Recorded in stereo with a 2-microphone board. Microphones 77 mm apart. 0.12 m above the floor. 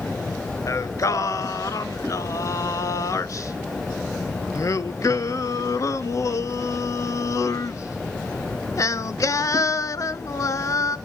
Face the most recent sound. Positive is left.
turn(degrees=45)  # may be behind; listen again after turning